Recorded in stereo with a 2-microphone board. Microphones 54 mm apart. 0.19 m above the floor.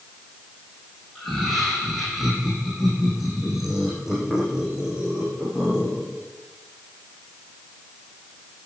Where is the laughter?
5° left (ahead or behind), 7.5 m; by 6.2 s 15° right (ahead or behind), 10.5 m.